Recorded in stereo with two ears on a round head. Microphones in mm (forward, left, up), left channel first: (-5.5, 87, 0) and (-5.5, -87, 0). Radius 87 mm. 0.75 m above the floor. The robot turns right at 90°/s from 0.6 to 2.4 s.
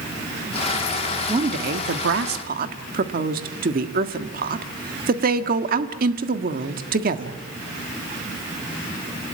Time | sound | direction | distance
1.3 | a woman speaking | 155° right | 1.6 m